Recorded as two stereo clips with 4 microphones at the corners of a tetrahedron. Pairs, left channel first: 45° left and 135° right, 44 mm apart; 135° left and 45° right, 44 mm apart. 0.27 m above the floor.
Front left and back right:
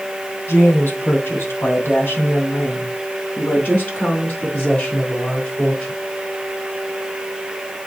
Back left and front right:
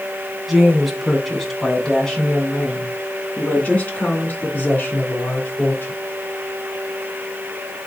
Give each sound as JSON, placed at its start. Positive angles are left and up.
{"t": 0.5, "sound": "a woman speaking", "azimuth_deg": 40, "distance_m": 2.5}